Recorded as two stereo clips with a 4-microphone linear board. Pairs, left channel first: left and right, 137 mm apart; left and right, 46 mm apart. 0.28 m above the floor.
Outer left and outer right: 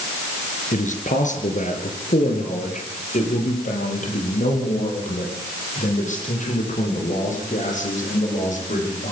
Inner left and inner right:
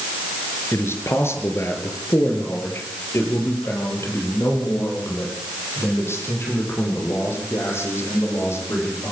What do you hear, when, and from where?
0.7 s a man speaking: 65° left (ahead or behind), 4 m; by 9.1 s 60° left (ahead or behind), 11.5 m